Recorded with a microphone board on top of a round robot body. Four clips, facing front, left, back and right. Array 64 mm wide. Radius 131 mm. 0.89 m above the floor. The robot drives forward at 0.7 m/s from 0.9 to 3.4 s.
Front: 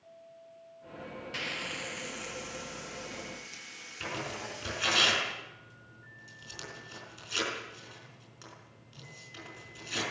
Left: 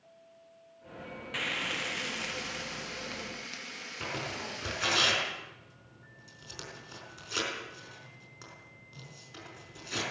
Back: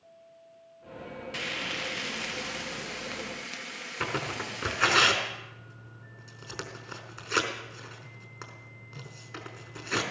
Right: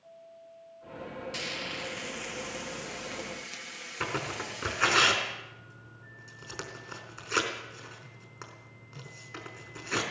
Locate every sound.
1.3 s frying: 100° left, 0.8 m; by 5.0 s 165° left, 1.7 m
4.0 s tearing paper: 150° right, 4 m